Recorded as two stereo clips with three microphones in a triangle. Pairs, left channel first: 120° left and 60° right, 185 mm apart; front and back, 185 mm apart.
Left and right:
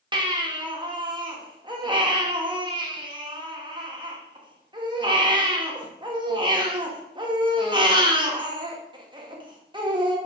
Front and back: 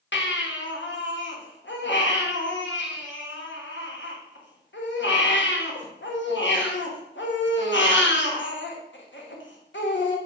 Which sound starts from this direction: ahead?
A baby crying, at 0.1 s.